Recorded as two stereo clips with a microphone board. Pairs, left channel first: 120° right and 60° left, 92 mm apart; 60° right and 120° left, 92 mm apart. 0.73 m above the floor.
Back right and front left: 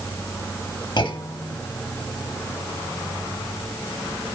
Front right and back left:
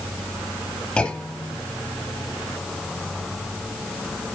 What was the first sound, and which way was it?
A clunk, 140° right.